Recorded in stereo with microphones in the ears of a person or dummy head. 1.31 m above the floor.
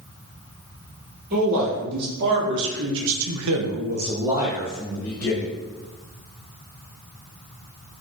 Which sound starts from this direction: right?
A man speaking, at 1.3 s.